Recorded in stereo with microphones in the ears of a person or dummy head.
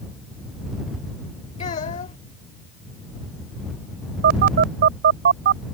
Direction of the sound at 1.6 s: 40° left (ahead or behind).